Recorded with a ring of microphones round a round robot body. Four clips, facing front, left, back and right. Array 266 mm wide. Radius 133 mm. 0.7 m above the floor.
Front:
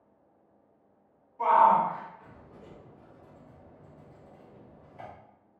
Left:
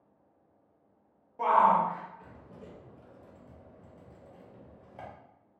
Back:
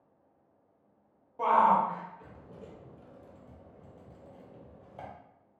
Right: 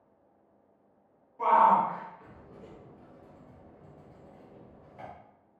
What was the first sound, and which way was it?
A shout, 140° left.